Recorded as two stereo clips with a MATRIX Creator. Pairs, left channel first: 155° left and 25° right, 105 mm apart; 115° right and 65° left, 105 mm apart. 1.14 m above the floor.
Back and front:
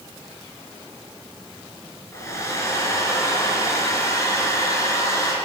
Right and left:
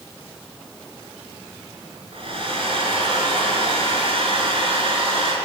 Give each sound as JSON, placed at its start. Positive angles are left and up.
{"t": 2.1, "sound": "a hair dryer", "azimuth_deg": 95, "distance_m": 4.5}